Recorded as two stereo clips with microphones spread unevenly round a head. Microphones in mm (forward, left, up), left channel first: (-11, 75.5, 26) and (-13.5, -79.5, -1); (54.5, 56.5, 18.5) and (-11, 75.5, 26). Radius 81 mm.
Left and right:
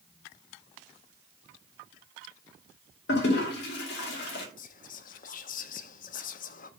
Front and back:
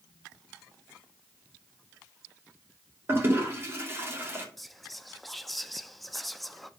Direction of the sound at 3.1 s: 110° left.